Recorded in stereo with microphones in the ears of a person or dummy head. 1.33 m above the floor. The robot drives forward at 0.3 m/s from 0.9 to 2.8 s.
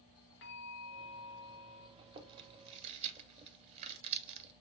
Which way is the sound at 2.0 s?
20° right (ahead or behind).